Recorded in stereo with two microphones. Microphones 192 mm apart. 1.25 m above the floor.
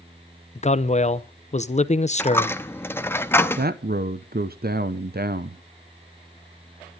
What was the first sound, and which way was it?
A man speaking, 35° left (ahead or behind).